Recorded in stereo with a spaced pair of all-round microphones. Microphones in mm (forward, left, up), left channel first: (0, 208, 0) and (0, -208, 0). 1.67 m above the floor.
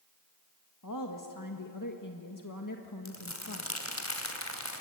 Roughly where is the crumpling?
Left.